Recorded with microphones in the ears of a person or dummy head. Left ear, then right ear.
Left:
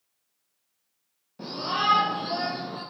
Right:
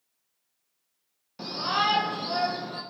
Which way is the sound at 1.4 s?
45° right (ahead or behind).